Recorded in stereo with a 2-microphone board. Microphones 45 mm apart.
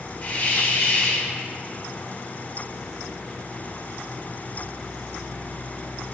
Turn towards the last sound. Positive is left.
turn(degrees=35)  # may be behind; listen again after turning